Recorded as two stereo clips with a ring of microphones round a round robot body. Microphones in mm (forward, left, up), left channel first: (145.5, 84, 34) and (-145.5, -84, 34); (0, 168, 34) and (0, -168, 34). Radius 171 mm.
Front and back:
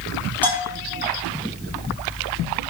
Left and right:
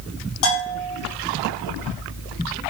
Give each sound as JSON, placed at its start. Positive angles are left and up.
{"t": 0.4, "sound": "a bell", "azimuth_deg": 115, "distance_m": 5.0}